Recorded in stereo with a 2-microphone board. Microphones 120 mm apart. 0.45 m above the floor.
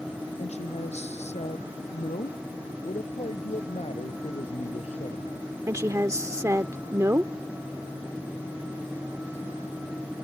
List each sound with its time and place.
0.4 s a woman speaking: 75° left (ahead or behind)
2.8 s a man speaking: 70° left (ahead or behind)
5.7 s a woman speaking: 25° right (ahead or behind)